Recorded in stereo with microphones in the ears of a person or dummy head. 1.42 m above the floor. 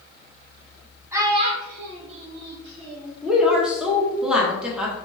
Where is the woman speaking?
5° right (ahead or behind), 1.1 m.